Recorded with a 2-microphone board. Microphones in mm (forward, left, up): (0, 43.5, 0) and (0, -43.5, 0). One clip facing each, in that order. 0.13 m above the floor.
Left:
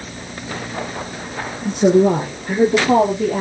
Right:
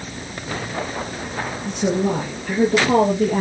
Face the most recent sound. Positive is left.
turn(degrees=0)  # may be behind; listen again after turning